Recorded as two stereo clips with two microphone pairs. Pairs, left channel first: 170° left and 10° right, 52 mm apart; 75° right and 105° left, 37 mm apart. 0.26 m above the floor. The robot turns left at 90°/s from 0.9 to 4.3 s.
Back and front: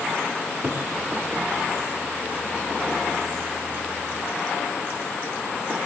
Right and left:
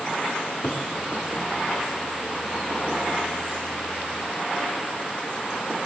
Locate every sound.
0.4 s a cupboard door: 65° right, 1.6 m